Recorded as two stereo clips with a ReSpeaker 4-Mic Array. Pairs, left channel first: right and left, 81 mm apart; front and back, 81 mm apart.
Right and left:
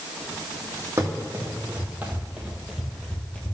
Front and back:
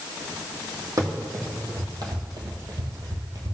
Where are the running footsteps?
140° left, 2.5 m; by 3.5 s 155° right, 1.4 m.